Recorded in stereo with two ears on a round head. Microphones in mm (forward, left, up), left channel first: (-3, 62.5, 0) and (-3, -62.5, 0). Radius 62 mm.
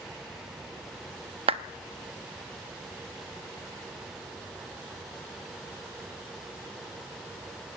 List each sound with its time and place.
1.5 s a clap: 40° right (ahead or behind), 0.9 m